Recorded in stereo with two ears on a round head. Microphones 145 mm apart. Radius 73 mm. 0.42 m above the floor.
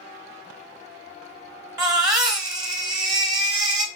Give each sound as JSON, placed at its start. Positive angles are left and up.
{"t": 1.8, "sound": "a baby crying", "side_deg": -25, "distance_m": 1.0}